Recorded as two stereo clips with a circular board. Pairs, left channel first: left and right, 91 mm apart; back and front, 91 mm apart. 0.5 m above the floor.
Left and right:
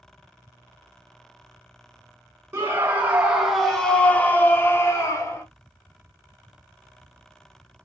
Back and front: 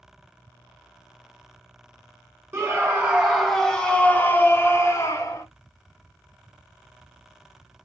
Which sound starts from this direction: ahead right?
A scream, at 2.5 s.